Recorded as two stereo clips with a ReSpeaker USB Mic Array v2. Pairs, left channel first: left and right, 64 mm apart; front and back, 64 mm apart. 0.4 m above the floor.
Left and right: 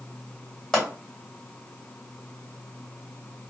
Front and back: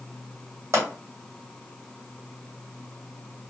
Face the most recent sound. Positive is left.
turn(degrees=170)